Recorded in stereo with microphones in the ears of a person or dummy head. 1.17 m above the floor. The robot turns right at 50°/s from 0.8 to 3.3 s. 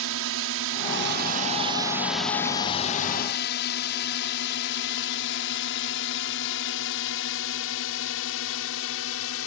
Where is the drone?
65° right (ahead or behind); by 9.5 s 70° left (ahead or behind).